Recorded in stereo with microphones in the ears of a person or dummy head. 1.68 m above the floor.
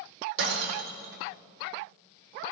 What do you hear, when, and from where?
0.4 s breaking glass: 60° right (ahead or behind), 1.7 m